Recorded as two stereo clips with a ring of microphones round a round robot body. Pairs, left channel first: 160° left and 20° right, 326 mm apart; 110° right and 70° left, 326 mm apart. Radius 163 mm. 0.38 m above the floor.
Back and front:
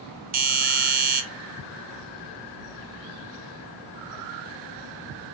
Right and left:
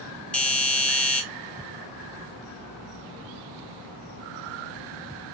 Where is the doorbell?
30° right, 2 m.